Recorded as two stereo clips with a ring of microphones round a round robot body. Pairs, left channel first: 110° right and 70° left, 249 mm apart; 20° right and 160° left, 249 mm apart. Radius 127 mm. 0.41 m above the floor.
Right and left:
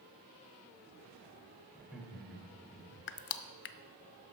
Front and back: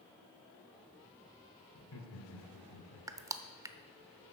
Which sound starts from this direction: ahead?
Laughter, at 1.7 s.